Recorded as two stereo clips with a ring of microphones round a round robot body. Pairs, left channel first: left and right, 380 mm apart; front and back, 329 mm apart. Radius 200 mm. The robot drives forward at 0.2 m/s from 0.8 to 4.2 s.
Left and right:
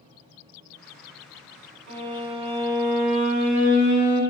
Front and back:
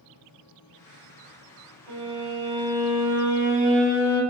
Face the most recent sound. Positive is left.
turn(degrees=-140)